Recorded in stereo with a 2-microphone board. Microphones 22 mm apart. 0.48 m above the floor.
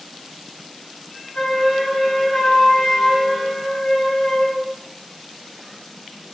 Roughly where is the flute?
Left.